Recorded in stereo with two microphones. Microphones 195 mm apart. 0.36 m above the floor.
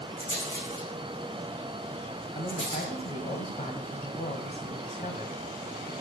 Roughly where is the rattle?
Left.